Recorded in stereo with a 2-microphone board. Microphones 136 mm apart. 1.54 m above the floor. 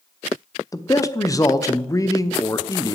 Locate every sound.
0.7 s a man speaking: 25° left (ahead or behind), 0.7 m